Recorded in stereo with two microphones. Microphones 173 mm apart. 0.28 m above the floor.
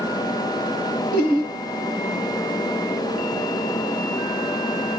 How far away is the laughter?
About 3 m.